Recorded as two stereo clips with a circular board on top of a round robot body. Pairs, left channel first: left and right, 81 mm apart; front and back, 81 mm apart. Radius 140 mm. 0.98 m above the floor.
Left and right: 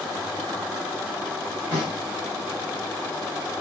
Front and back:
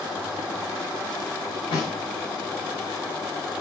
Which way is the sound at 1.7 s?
10° left.